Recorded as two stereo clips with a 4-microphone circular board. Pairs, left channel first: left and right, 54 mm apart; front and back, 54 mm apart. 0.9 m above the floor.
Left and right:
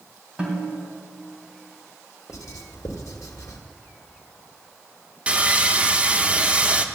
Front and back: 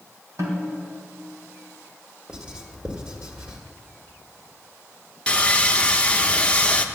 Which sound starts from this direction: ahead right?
Sawing, at 5.3 s.